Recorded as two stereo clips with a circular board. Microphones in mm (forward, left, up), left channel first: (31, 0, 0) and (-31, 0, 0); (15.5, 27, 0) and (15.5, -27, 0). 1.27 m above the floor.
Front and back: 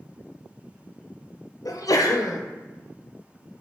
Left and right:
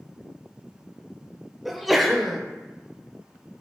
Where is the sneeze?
Straight ahead, 0.6 m.